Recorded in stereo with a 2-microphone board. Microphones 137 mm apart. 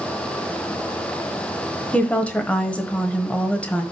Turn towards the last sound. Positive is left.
turn(degrees=10)  # may be behind; listen again after turning